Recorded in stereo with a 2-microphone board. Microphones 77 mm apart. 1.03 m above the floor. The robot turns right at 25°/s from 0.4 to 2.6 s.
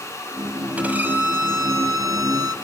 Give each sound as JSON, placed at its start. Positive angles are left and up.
{"t": 0.8, "sound": "a violin", "azimuth_deg": -160, "distance_m": 1.8}